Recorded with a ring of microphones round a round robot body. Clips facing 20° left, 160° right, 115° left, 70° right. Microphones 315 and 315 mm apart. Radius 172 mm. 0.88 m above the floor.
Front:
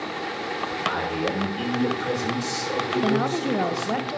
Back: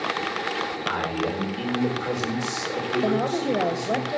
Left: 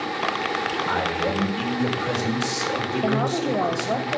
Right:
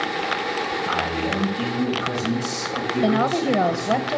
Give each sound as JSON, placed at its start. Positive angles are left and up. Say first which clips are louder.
{"t": 0.9, "sound": "a man speaking", "louder": "front 1 dB, left 2 dB", "azimuth_deg": 115, "distance_m": 4.0}
{"t": 3.0, "sound": "a woman speaking", "louder": "even, right 4 dB", "azimuth_deg": -45, "distance_m": 1.2}